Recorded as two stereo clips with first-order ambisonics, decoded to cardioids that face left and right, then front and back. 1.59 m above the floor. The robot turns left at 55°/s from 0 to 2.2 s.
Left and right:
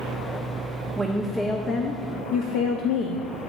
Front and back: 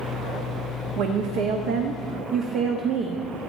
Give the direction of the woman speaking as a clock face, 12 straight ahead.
5 o'clock.